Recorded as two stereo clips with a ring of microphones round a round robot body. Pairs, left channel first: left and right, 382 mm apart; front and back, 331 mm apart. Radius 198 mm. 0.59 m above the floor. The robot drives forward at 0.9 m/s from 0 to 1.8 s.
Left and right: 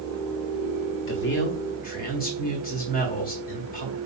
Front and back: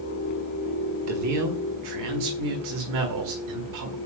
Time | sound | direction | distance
1.1 | a man speaking | 145° left | 1.3 m